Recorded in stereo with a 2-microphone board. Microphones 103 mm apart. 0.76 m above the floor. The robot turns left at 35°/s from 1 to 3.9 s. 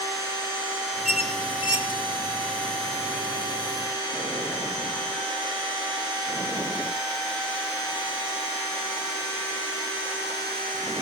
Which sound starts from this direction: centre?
A squeak, at 1.1 s.